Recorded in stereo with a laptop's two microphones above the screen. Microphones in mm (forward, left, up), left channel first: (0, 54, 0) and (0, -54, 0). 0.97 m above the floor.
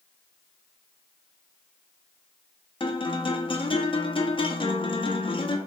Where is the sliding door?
No sliding door in this recording.